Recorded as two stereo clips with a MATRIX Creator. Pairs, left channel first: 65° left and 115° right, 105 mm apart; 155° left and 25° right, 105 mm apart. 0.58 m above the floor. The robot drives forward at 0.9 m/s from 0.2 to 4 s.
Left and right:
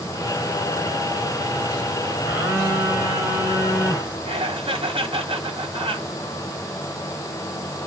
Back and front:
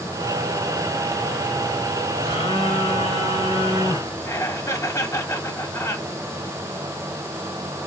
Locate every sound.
2.3 s a phone buzzing: straight behind, 3 m
4.2 s laughter: 140° right, 3 m